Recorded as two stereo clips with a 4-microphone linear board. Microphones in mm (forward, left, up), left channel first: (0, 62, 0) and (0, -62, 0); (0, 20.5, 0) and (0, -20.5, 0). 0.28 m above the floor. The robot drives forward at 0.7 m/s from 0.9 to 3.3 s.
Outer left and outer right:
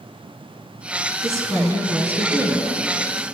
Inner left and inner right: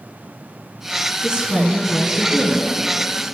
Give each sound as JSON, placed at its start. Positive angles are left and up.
{"t": 1.2, "sound": "a woman speaking", "side_deg": -25, "distance_m": 2.0}